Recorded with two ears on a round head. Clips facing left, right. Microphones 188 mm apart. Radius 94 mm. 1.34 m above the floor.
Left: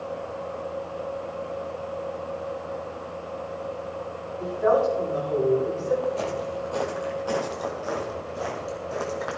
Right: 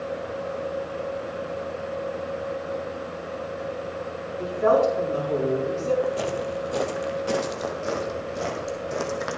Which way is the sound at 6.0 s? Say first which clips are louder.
Right 1 dB; 15° right (ahead or behind).